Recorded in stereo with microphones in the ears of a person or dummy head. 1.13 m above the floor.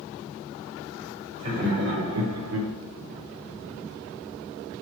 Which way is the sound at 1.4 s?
50° right (ahead or behind).